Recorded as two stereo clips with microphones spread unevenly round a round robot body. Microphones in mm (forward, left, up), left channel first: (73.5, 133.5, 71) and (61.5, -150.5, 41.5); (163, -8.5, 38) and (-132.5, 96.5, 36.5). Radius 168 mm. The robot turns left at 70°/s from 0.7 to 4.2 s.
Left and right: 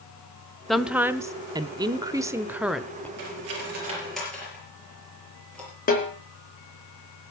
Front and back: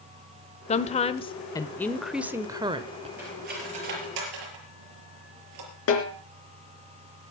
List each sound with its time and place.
0.7 s a woman speaking: 15° right, 0.9 m; by 3.1 s 175° left, 0.9 m
3.2 s cutlery clinking: 115° right, 5 m; by 5.7 s 175° left, 5 m
5.9 s a snare drum: 25° left, 4 m